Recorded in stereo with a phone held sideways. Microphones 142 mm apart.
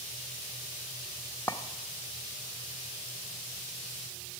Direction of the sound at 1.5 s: 15° left (ahead or behind).